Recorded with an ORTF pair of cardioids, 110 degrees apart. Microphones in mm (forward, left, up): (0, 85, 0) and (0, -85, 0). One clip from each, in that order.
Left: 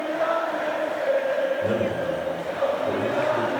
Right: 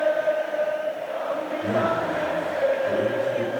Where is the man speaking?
55° left, 5 m.